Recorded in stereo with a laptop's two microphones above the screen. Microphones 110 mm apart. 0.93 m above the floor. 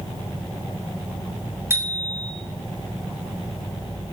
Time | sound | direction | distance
1.7 | a bicycle bell | 25° right (ahead or behind) | 3 m